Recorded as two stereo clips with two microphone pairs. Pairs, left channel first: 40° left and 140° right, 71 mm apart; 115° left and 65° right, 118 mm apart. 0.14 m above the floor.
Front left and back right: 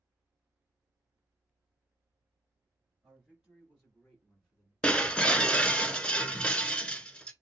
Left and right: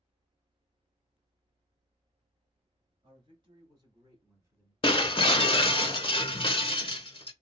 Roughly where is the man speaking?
Ahead right.